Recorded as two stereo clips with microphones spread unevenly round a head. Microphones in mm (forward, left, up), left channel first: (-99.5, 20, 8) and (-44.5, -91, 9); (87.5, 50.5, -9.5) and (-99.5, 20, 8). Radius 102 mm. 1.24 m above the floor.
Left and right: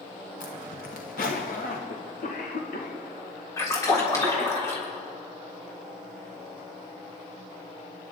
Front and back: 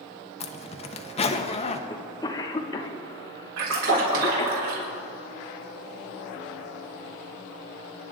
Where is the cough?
75° left, 1.6 m.